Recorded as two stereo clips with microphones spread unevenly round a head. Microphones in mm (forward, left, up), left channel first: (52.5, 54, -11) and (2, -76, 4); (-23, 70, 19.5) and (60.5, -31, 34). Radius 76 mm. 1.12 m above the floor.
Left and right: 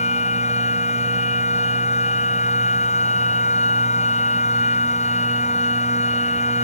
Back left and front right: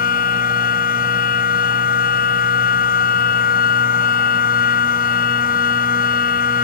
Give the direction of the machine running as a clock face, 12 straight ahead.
8 o'clock.